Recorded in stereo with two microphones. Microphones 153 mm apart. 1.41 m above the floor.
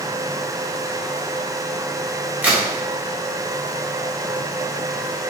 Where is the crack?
10° right (ahead or behind), 1.3 m.